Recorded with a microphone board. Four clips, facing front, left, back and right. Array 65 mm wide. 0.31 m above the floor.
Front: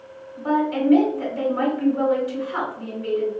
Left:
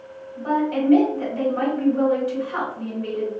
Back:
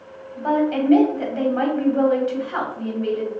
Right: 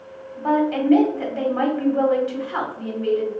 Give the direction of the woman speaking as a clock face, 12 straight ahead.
5 o'clock.